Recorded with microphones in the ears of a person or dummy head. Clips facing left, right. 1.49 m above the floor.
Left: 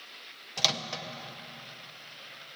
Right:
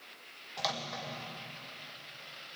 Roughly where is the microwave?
Left.